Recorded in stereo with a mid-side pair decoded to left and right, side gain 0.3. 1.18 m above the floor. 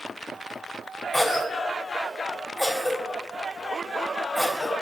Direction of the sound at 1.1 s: 20° left.